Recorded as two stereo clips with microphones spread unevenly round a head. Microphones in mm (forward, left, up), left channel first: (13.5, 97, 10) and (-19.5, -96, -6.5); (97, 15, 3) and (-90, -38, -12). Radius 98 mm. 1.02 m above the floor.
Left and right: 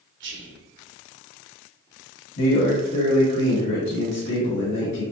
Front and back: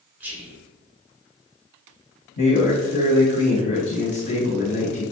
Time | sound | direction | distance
0.2 | whispering | 85° right | 1.1 m
2.4 | a man speaking | 45° left | 1.7 m